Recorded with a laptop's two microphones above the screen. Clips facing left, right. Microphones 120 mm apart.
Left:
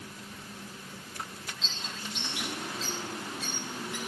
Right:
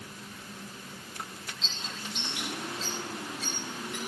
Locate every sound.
1.6 s a bird: centre (ahead or behind), 6 m